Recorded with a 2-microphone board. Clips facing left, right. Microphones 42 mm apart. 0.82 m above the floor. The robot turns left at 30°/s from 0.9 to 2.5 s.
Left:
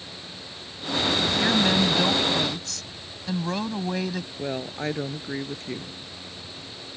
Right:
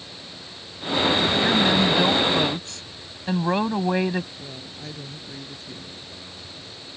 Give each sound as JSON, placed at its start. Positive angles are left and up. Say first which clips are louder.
{"t": 1.4, "sound": "a woman speaking", "louder": "even", "azimuth_deg": 5}
{"t": 4.4, "sound": "a woman speaking", "louder": "left 9 dB", "side_deg": 50}